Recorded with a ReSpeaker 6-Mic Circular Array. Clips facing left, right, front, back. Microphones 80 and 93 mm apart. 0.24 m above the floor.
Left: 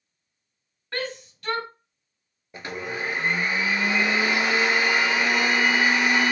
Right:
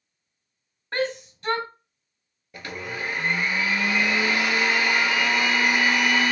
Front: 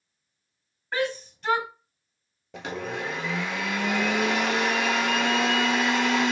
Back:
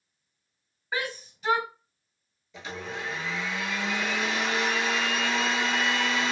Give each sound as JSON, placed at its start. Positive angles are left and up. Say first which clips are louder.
{"t": 0.9, "sound": "a shout", "louder": "right 5 dB, front 5 dB", "azimuth_deg": -100, "distance_m": 1.2}
{"t": 2.5, "sound": "a blender", "louder": "left 2 dB, front 5 dB", "azimuth_deg": 25, "distance_m": 0.7}